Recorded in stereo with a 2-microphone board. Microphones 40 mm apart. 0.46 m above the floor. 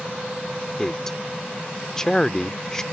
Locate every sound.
0.8 s a man speaking: 15° left (ahead or behind)